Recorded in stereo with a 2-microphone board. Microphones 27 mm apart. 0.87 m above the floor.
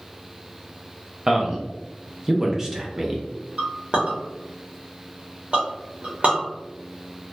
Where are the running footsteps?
No running footsteps in this recording.